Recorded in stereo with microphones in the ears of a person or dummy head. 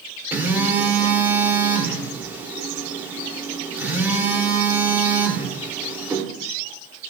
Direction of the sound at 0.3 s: 10° right (ahead or behind).